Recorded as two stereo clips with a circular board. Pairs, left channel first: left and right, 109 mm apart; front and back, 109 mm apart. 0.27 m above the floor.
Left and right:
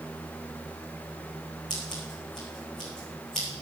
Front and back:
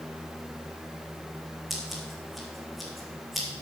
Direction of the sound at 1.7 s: 90° left.